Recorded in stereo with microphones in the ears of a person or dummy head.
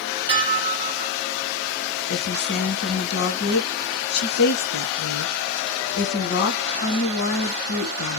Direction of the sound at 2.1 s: 55° left (ahead or behind).